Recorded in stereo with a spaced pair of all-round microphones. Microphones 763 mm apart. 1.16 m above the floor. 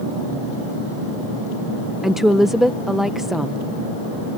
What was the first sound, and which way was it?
A woman speaking, centre (ahead or behind).